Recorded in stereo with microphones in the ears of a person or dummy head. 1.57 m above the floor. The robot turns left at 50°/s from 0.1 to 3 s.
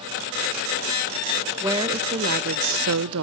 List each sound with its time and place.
1.6 s a woman speaking: 10° right, 0.5 m; by 3.2 s 80° right, 0.5 m